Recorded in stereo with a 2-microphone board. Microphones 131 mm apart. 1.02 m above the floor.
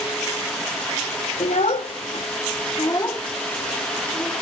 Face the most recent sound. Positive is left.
turn(degrees=5)  # may be behind; listen again after turning